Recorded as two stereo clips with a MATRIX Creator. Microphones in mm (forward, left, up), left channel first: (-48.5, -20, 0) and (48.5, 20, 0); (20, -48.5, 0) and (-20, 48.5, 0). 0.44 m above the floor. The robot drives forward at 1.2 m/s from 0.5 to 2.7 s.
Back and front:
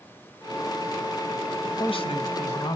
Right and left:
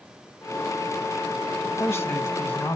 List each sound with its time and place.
1.6 s a man speaking: 120° right, 1.9 m; by 2.8 s 145° right, 2.5 m